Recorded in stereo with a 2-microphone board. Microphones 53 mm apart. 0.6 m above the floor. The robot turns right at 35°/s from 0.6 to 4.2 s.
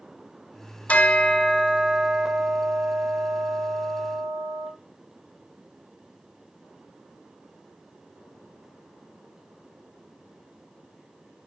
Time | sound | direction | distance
0.9 | a bell | 155° left | 0.9 m